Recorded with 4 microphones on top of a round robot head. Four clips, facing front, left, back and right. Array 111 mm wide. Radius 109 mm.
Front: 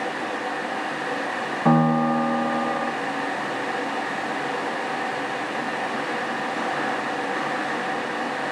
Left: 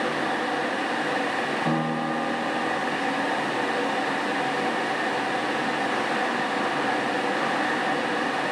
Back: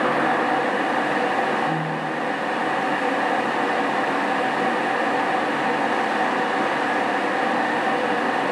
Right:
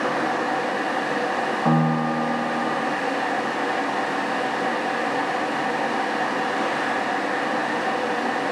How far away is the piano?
About 4 m.